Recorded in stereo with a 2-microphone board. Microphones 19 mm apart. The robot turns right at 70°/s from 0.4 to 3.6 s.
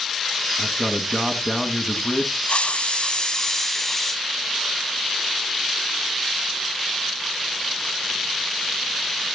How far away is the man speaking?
About 2.0 m.